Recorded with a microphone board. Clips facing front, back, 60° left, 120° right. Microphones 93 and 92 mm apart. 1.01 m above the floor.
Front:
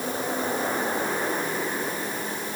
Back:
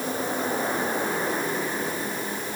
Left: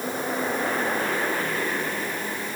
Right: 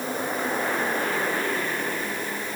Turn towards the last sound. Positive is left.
No sound to turn to.